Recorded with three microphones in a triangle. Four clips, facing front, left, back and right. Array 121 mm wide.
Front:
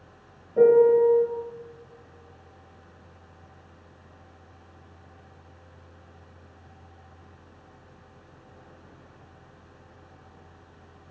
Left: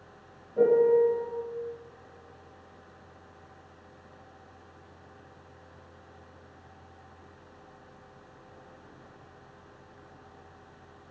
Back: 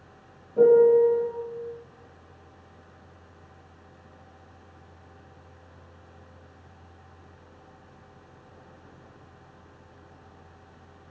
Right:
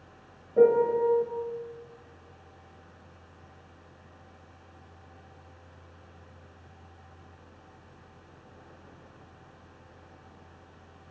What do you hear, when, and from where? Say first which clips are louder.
0.6 s a piano: even, even; 50° right, 1.3 m